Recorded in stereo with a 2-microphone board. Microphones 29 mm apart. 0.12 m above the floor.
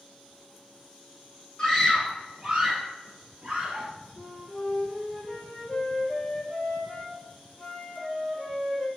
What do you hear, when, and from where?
1.6 s a scream: 20° left (ahead or behind), 1.2 m; by 3.9 s 30° right (ahead or behind), 1.4 m
4.2 s a flute: 30° left (ahead or behind), 0.8 m